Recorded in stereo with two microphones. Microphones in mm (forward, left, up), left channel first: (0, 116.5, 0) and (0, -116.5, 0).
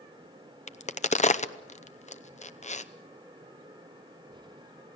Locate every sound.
0.7 s a crack: 30° left (ahead or behind), 0.8 m